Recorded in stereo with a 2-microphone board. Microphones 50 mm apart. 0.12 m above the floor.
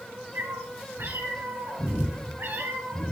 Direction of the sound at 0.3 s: 55° right (ahead or behind).